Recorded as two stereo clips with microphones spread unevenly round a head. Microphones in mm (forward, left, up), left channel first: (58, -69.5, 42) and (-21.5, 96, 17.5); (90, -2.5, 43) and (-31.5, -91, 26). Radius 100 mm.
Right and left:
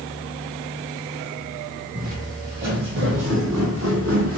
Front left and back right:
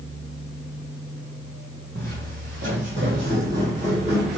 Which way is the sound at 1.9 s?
170° left.